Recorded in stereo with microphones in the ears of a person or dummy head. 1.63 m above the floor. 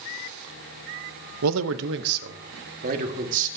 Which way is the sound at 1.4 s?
90° right.